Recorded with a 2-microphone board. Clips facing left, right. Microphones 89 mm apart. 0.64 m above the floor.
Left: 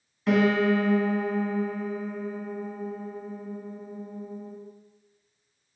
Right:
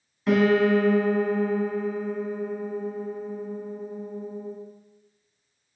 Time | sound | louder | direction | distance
0.3 | a piano | right 2 dB | centre (ahead or behind) | 0.7 m